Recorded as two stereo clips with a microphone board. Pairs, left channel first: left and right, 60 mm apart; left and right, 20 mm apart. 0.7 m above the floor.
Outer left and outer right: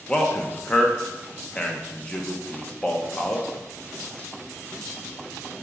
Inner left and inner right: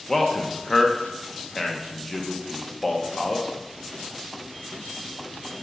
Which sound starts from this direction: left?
A man speaking, at 0.1 s.